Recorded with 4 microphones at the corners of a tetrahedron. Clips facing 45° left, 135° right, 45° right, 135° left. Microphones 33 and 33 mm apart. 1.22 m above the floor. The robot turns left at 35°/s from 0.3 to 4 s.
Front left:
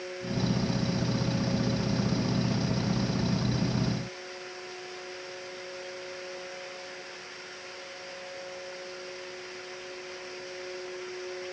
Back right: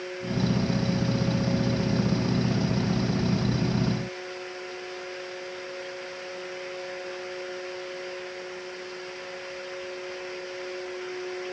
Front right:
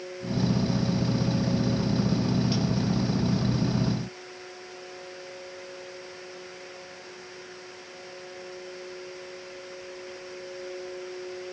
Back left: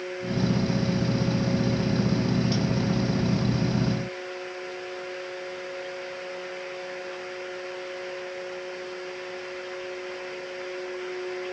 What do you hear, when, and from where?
Only background noise.